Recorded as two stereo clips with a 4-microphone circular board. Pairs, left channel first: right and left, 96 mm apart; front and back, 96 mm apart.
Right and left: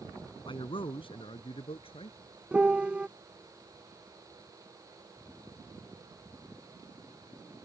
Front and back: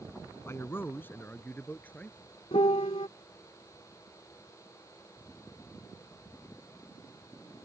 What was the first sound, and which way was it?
A man speaking, 65° right.